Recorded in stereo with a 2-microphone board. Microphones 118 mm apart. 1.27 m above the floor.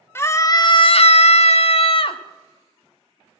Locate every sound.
0.1 s a scream: 20° left (ahead or behind), 0.8 m; by 2.2 s 45° left (ahead or behind), 0.9 m